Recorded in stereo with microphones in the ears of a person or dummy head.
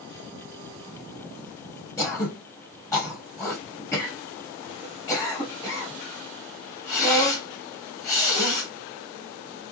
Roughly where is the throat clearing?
Centre.